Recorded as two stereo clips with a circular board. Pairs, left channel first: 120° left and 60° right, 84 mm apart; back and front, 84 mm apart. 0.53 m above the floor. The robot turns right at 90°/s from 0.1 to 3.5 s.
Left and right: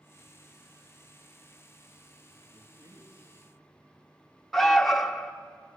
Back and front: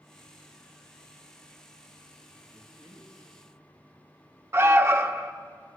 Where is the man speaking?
105° right, 6 m; by 3.3 s 35° right, 6 m.